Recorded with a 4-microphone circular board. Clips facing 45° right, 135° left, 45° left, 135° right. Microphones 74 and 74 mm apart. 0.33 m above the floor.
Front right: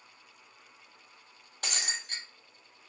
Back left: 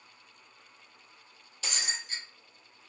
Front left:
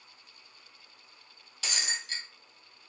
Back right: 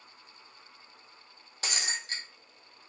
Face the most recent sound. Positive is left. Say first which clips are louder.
# even, back right 1 dB
turn(degrees=-85)